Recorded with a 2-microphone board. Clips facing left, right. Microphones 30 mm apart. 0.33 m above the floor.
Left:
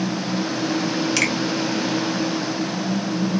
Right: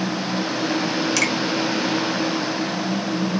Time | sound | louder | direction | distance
1.2 | a finger snap | left 1 dB | 10° left (ahead or behind) | 1.2 m